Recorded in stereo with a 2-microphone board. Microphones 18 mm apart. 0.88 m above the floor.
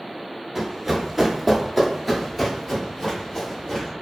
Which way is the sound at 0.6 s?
30° right (ahead or behind).